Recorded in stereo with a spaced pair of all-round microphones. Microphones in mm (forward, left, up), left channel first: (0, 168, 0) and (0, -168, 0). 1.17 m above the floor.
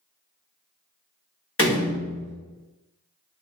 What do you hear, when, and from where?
1.6 s a door slam: 40° left (ahead or behind), 1.1 m